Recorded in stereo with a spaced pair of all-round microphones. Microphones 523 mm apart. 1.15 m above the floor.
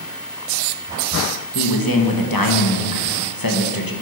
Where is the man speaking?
40° left (ahead or behind), 1.6 m.